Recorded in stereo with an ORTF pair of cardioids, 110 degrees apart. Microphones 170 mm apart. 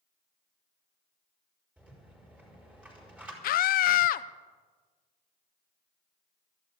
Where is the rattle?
5° right, 5.5 m.